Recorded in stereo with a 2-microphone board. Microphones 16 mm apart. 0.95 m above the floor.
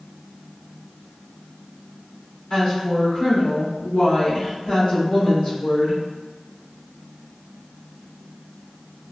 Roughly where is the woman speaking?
Left.